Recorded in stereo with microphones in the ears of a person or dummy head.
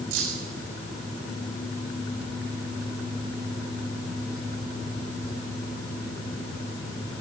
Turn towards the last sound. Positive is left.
turn(degrees=-80)